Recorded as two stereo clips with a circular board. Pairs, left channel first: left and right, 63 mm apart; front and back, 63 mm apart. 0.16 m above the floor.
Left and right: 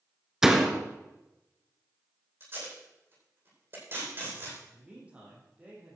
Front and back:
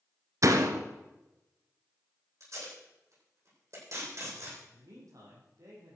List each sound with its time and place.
0.4 s a door slam: 175° right, 1.5 m
2.4 s tape being pulled: 145° right, 9.5 m
4.7 s a man speaking: 160° right, 7 m